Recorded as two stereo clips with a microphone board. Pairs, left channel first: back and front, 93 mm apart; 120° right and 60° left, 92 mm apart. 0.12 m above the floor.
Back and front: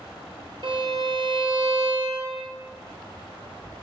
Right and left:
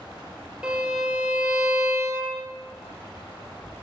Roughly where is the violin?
Ahead.